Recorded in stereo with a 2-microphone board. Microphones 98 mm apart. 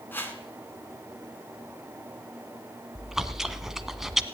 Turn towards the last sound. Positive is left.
turn(degrees=-5)  # may be behind; listen again after turning